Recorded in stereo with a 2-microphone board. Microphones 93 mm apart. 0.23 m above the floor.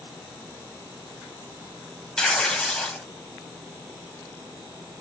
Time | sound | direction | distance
2.2 | tearing paper | 10° left (ahead or behind) | 0.9 m